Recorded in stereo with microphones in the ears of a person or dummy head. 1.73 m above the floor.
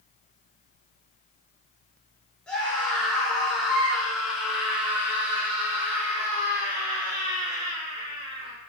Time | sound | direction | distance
2.5 | a scream | 5° left (ahead or behind) | 6 m